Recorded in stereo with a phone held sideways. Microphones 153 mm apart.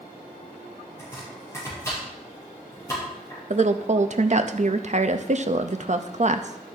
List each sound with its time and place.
1.0 s chopping: 15° left (ahead or behind), 6 m
3.5 s a woman speaking: 50° right (ahead or behind), 0.6 m